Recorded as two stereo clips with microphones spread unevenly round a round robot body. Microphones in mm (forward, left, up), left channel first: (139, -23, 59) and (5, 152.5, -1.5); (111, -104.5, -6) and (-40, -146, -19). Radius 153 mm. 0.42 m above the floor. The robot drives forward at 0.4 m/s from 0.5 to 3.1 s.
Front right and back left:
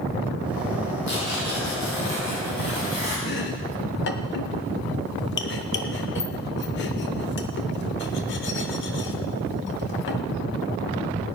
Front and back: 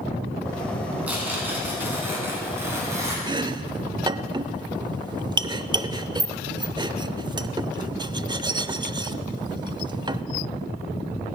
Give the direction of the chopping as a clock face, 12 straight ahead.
4 o'clock.